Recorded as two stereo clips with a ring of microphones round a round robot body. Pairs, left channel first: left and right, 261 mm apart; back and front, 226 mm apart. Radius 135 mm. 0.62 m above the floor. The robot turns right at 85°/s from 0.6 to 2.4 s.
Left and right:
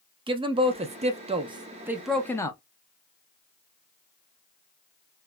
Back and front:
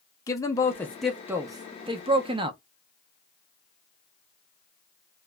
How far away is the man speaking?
About 0.5 m.